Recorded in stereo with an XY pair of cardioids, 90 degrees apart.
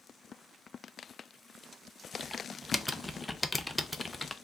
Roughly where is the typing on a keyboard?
Ahead.